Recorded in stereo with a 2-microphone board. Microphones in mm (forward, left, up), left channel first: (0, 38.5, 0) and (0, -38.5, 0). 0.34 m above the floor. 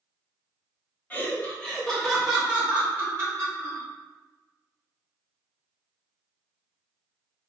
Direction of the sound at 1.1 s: 20° left (ahead or behind).